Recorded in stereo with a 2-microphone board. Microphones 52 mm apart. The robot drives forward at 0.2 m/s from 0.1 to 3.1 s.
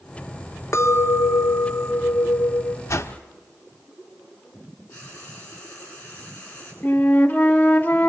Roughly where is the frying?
Left.